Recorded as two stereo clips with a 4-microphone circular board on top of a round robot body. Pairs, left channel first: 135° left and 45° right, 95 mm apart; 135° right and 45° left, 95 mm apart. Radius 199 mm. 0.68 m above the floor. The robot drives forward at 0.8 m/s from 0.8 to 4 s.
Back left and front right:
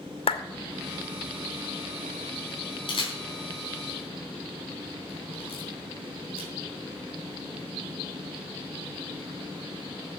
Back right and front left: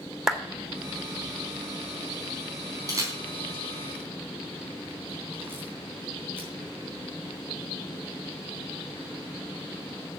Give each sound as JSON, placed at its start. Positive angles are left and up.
{"t": 0.3, "sound": "a clap", "azimuth_deg": 130, "distance_m": 1.6}
{"t": 2.9, "sound": "a camera shutter", "azimuth_deg": 100, "distance_m": 4.0}